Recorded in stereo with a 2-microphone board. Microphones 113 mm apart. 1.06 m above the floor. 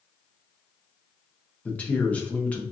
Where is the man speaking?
10° left (ahead or behind), 0.6 m.